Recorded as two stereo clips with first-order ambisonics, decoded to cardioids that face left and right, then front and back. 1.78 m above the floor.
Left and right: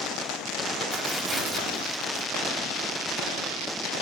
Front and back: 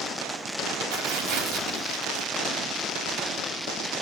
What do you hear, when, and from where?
0.9 s tearing paper: 155° right, 3 m